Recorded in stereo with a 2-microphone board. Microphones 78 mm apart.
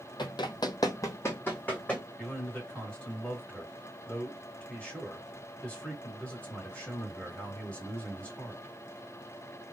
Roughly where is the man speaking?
Centre.